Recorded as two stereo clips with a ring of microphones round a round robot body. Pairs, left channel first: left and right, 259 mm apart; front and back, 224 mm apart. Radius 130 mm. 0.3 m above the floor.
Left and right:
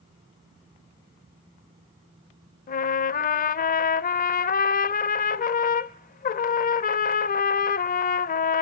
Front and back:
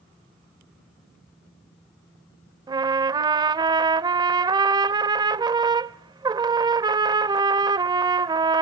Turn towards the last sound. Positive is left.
turn(degrees=120)